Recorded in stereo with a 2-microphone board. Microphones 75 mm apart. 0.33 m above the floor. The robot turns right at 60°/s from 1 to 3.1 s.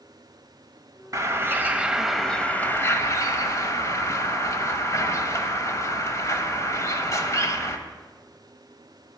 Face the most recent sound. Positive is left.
turn(degrees=55)